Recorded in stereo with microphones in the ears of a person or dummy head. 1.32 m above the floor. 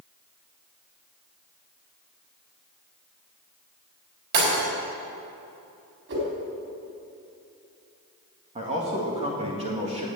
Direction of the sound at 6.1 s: 60° right (ahead or behind).